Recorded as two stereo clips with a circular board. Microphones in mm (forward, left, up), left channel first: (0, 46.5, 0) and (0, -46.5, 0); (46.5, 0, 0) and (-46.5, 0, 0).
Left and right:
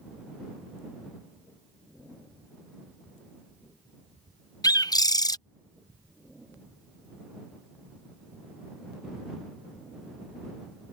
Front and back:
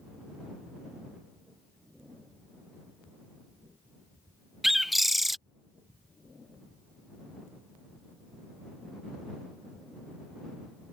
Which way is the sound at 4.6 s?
90° left.